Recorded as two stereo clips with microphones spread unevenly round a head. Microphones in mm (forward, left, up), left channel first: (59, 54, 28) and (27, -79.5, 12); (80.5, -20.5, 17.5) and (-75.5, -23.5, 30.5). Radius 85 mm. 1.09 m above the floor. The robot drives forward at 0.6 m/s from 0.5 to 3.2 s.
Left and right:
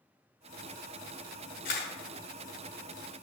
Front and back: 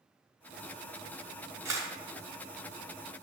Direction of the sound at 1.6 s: 110° left.